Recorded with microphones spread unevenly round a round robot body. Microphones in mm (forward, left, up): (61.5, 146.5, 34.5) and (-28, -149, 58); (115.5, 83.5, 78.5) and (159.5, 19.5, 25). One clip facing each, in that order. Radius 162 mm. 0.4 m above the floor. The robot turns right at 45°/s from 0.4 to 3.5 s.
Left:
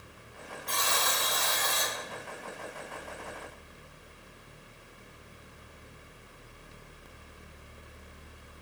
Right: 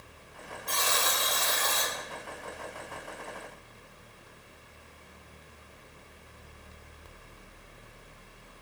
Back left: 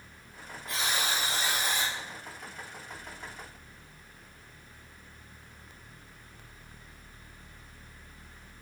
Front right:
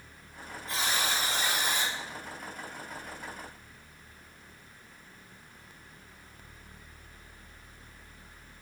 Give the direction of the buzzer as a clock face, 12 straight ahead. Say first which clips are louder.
Right 1 dB, even; 4 o'clock.